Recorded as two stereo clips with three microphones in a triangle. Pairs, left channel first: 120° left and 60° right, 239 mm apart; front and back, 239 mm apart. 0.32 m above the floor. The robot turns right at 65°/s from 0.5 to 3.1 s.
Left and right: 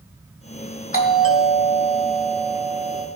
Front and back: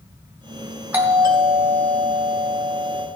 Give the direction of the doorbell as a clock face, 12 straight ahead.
9 o'clock.